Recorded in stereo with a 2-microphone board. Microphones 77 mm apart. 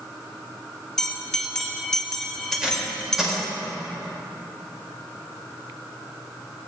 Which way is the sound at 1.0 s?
10° left (ahead or behind).